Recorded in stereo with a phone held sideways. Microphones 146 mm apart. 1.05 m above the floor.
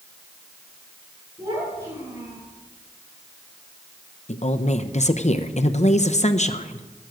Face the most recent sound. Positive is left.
turn(degrees=50)  # may be behind; listen again after turning